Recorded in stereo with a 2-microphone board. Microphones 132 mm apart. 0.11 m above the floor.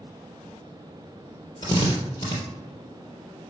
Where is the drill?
30° left (ahead or behind), 3 m.